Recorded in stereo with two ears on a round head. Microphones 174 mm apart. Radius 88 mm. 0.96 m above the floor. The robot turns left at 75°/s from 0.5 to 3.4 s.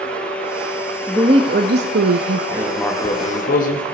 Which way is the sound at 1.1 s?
5° right.